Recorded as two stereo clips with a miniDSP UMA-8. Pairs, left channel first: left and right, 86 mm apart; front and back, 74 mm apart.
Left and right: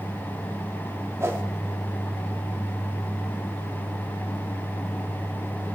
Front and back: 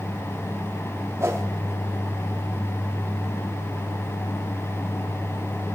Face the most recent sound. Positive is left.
turn(degrees=-140)